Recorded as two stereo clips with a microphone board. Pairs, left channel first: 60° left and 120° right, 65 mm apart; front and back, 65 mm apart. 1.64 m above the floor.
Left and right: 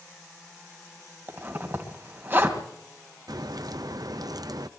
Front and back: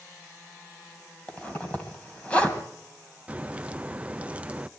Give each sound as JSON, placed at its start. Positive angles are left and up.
{"t": 1.3, "sound": "a zipper", "azimuth_deg": -70, "distance_m": 3.0}
{"t": 3.3, "sound": "a crack", "azimuth_deg": -110, "distance_m": 0.5}